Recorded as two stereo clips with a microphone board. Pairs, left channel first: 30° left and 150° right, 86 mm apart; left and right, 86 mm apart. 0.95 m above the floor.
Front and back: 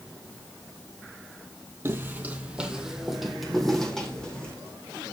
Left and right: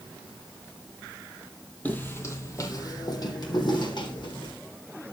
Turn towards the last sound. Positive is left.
turn(degrees=110)